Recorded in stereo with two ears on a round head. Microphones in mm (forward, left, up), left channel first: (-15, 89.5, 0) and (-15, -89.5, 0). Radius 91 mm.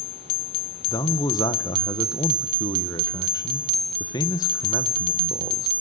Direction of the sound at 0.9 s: 20° left (ahead or behind).